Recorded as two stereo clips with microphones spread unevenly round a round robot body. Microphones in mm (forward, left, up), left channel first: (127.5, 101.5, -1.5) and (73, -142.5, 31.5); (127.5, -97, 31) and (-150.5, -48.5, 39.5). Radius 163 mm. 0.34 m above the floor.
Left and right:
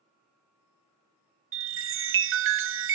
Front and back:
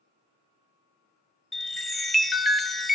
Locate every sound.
1.5 s a chime: 100° right, 1.0 m